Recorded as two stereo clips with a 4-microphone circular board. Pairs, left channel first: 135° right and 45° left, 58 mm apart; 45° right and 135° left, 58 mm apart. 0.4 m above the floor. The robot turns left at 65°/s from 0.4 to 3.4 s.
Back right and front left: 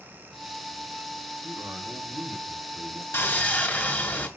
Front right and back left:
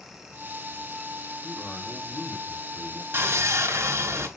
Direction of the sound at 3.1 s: Straight behind.